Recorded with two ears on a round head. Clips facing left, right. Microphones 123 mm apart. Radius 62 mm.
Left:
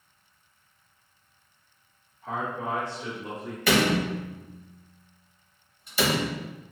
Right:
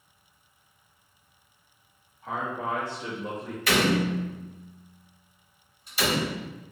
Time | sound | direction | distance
2.2 | a man speaking | centre (ahead or behind) | 1.4 m
3.7 | a door slam | 75° left (ahead or behind) | 0.8 m